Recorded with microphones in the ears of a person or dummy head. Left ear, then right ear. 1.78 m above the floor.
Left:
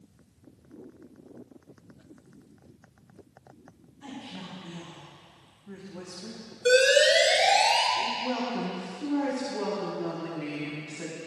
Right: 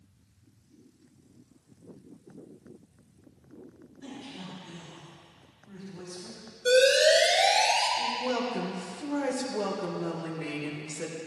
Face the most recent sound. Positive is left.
turn(degrees=-5)  # may be behind; listen again after turning